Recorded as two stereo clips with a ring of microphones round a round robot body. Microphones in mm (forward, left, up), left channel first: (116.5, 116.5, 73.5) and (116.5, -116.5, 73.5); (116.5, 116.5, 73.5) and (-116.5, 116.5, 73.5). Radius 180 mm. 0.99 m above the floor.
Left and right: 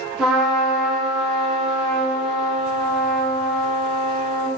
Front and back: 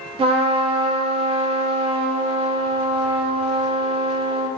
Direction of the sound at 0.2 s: 175° right.